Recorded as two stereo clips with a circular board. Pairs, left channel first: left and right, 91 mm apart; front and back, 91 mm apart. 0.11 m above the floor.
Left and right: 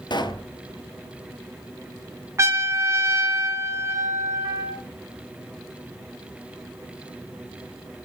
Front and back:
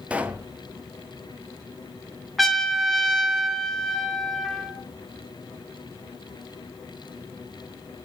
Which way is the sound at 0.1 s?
105° left.